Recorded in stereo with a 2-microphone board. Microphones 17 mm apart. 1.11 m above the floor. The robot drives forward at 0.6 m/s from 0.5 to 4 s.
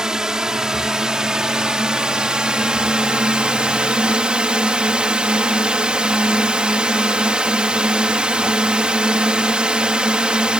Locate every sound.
0.0 s a drone: 40° right (ahead or behind); by 10.6 s 70° right (ahead or behind)